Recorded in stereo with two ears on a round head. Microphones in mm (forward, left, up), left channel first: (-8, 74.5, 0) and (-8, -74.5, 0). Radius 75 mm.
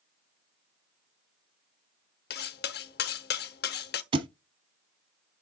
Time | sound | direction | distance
2.3 | cutlery clinking | 65° left (ahead or behind) | 0.9 m
4.1 | a thud | 35° right (ahead or behind) | 0.8 m